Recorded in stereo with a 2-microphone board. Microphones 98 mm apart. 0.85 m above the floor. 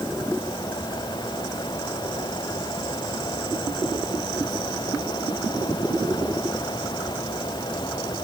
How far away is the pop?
No pop in this recording.